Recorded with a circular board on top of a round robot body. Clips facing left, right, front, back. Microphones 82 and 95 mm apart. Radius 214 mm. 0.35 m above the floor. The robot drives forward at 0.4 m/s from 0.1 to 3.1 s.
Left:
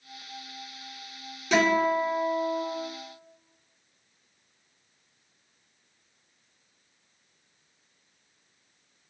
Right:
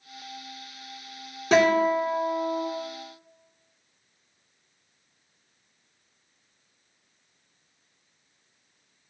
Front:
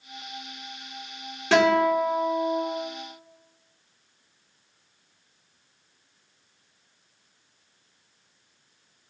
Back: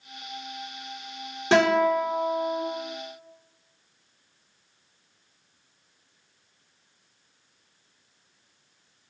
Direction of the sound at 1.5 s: 120° right.